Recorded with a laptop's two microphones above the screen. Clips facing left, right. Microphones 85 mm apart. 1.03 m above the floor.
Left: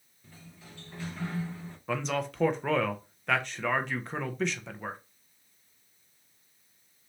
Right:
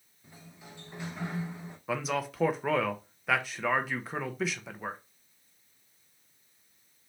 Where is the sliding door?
15° right (ahead or behind), 0.5 m.